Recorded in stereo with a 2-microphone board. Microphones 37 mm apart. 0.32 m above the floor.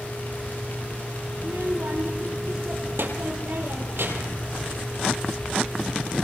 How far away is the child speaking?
About 5 m.